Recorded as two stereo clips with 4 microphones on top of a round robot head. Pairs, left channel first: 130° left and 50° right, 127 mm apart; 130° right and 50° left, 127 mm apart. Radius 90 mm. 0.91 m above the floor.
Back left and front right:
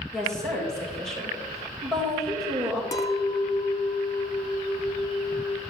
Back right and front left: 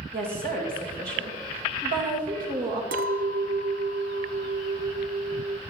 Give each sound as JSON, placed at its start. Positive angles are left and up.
{"t": 0.1, "sound": "a woman speaking", "azimuth_deg": 45, "distance_m": 4.0}
{"t": 2.9, "sound": "a clink", "azimuth_deg": 65, "distance_m": 0.8}